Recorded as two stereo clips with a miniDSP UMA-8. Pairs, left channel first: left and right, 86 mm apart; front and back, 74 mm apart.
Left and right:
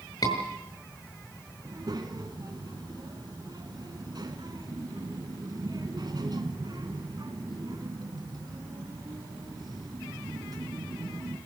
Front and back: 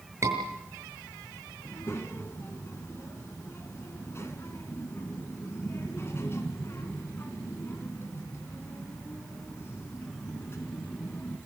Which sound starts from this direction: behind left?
A scream, at 0.2 s.